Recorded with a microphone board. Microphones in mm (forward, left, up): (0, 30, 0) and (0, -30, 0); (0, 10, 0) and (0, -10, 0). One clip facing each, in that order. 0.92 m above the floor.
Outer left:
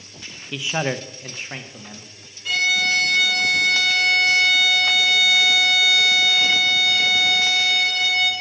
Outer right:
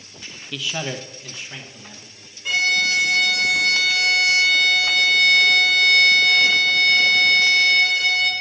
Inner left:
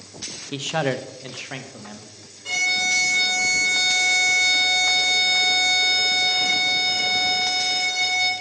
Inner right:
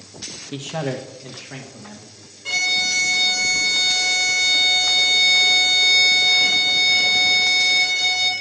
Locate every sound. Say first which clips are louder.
0.5 s a man speaking: outer left 4 dB, inner left 3 dB; 15° left (ahead or behind), 0.6 m; by 2.1 s 40° left (ahead or behind), 1.5 m
2.5 s a violin: even, inner right 1 dB; 15° right (ahead or behind), 3 m